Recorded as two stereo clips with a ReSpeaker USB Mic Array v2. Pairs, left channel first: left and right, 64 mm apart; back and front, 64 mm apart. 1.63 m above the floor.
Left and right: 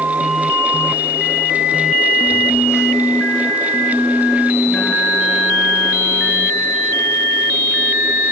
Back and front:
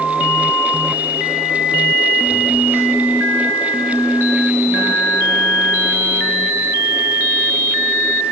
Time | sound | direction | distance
2.3 | a phone buzzing | 50° left | 3 m